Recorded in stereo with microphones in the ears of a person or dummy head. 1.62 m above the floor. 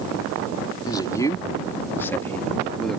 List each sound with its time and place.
0.9 s a man speaking: 20° left (ahead or behind); by 3.0 s centre (ahead or behind)